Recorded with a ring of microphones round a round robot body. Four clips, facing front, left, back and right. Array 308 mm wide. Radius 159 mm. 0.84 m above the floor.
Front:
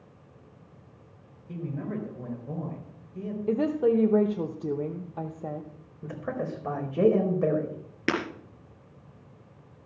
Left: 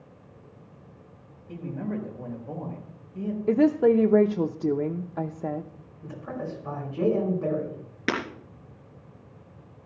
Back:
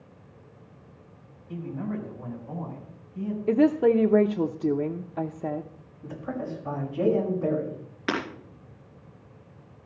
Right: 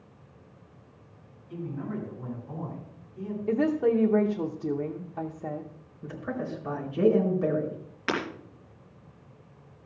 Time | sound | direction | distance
1.5 | a man speaking | 50° left | 4 m
3.5 | a woman speaking | 120° left | 0.7 m
6.0 | a man speaking | 10° right | 4.5 m
8.1 | breaking glass | 40° left | 3 m